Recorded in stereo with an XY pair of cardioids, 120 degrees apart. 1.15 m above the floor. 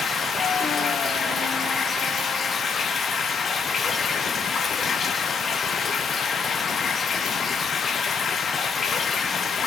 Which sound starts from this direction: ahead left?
Running water, at 0.0 s.